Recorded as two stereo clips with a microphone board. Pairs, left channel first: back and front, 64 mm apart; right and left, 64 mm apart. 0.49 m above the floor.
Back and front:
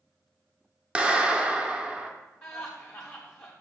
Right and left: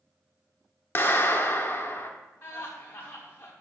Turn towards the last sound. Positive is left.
turn(degrees=-130)